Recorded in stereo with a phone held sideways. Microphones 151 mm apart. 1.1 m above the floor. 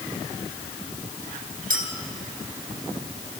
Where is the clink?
70° right (ahead or behind), 3.5 m.